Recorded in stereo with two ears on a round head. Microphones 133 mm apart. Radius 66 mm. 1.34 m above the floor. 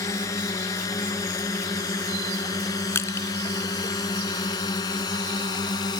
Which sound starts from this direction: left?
A drone, at 0.0 s.